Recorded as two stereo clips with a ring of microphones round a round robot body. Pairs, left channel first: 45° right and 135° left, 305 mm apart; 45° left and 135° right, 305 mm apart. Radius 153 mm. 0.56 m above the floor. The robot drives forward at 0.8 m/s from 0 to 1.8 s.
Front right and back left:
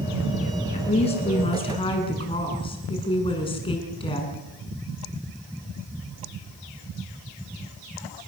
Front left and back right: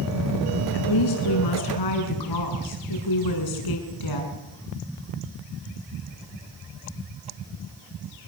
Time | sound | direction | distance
0.7 | a woman speaking | 25° left | 7.5 m